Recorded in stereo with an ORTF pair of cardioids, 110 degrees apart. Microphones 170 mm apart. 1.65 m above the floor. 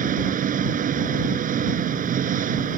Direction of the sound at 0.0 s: 55° right.